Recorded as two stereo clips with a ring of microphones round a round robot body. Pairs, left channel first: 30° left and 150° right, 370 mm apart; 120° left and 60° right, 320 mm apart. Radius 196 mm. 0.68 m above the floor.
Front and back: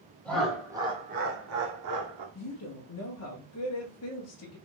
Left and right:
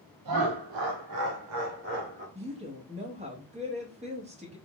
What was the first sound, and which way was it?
Laughter, 55° right.